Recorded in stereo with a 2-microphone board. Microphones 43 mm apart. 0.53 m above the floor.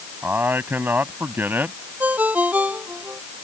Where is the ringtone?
40° right (ahead or behind).